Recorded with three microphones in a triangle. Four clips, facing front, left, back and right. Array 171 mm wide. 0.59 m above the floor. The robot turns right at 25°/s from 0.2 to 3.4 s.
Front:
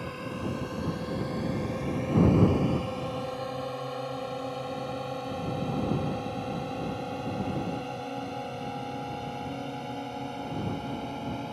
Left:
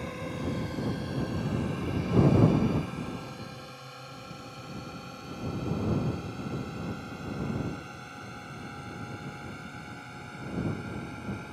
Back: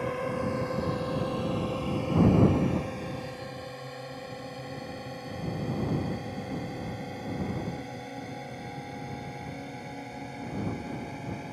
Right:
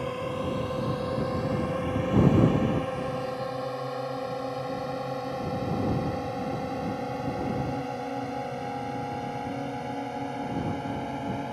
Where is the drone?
140° right; by 11.5 s 75° right.